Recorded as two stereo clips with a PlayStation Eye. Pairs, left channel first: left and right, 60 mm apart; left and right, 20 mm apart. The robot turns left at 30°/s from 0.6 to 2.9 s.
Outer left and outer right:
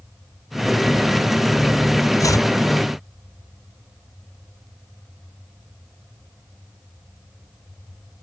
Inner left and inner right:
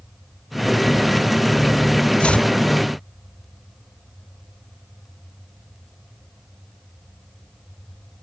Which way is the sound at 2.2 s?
65° left (ahead or behind).